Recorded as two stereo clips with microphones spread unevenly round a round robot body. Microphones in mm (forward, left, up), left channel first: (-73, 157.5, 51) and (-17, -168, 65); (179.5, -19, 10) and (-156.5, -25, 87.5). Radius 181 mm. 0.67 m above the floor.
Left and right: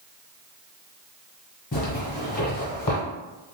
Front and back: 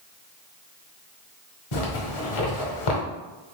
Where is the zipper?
30° left, 1.0 m.